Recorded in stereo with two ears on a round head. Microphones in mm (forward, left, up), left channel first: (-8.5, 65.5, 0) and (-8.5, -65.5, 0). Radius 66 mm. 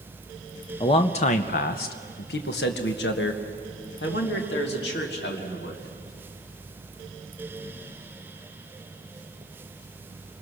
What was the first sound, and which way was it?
A man speaking, 30° left (ahead or behind).